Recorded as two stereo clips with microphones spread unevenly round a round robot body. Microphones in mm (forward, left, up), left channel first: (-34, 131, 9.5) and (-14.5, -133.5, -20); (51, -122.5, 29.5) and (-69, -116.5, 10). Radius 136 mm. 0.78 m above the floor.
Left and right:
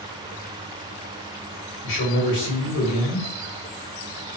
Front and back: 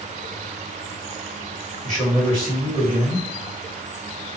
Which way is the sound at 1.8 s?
95° left.